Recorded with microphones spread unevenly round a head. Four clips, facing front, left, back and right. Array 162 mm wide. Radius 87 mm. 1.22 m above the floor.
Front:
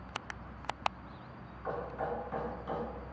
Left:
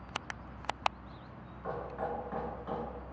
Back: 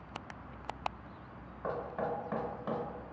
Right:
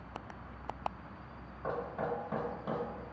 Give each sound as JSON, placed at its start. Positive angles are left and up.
{"t": 1.6, "sound": "knocking", "azimuth_deg": -145, "distance_m": 1.1}